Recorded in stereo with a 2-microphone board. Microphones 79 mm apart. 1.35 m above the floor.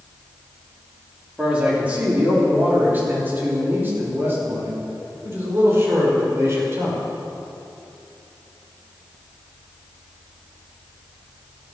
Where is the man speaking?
15° right (ahead or behind), 3.5 m; by 7.0 s 35° right (ahead or behind), 6 m.